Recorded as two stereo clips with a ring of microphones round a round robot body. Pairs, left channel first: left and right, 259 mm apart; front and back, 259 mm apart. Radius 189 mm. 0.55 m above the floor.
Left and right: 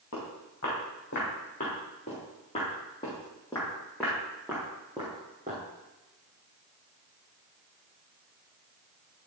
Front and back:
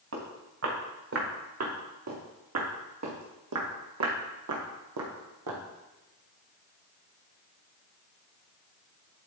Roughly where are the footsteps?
Behind left.